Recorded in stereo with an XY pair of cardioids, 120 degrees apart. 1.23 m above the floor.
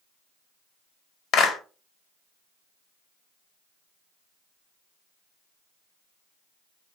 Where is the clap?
60° left, 1.9 m.